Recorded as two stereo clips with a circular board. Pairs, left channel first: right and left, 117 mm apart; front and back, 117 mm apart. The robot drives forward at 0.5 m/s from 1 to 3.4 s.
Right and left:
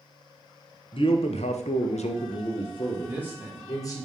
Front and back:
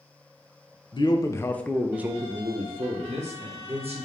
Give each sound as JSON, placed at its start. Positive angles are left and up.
{"t": 0.9, "sound": "a man speaking", "azimuth_deg": -50, "distance_m": 0.6}
{"t": 3.0, "sound": "a man speaking", "azimuth_deg": 160, "distance_m": 1.3}